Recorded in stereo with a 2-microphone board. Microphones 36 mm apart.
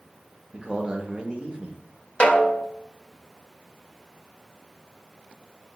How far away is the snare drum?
About 0.6 m.